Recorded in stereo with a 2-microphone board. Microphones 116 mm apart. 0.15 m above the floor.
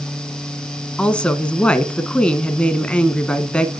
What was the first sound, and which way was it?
A woman speaking, 10° left (ahead or behind).